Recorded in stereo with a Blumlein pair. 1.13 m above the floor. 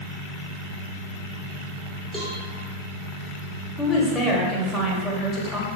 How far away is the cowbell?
About 2.5 m.